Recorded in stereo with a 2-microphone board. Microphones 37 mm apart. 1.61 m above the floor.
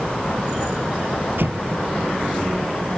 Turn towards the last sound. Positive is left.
turn(degrees=-70)  # may be behind; listen again after turning